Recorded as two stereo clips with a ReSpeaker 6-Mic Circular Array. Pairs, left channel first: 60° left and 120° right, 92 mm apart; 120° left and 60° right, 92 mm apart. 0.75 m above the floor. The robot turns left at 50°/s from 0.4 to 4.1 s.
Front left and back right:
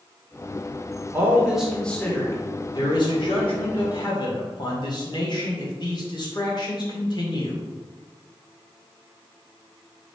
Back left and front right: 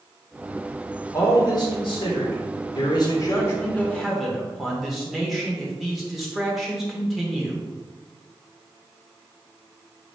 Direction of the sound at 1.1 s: 175° left.